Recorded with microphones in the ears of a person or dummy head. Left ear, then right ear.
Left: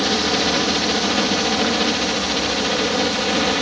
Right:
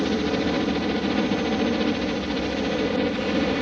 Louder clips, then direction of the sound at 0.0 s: Left 6 dB; 45° left (ahead or behind).